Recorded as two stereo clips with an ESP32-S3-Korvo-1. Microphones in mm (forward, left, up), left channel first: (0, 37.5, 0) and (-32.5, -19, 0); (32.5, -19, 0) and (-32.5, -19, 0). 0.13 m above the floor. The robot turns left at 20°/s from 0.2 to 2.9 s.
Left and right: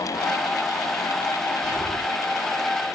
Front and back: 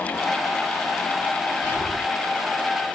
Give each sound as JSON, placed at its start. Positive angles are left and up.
{"t": 1.6, "sound": "whispering", "azimuth_deg": 145, "distance_m": 1.9}